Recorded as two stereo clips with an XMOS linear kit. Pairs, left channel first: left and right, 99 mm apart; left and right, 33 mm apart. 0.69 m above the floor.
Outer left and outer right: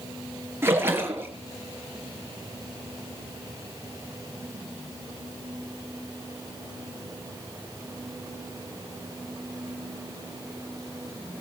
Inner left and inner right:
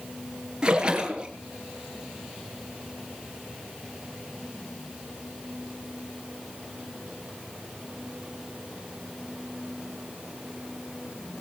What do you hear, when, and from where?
0.6 s a splash: 25° right (ahead or behind), 3 m